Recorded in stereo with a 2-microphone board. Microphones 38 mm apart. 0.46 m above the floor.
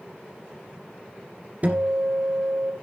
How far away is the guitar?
About 2 m.